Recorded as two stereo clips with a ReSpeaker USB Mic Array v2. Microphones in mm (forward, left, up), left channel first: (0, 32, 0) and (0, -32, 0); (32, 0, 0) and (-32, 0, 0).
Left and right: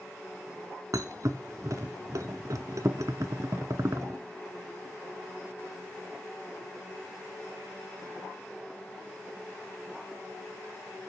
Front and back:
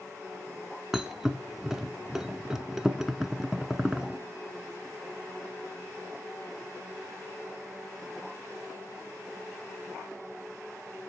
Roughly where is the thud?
Right.